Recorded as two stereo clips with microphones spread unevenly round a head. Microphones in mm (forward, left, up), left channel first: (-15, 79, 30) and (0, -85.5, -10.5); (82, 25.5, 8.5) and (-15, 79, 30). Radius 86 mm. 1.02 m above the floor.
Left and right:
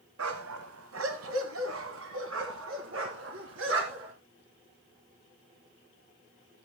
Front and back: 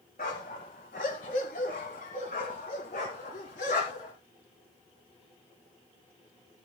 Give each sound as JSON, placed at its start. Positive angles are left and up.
{"t": 0.2, "sound": "a dog barking", "azimuth_deg": -80, "distance_m": 1.5}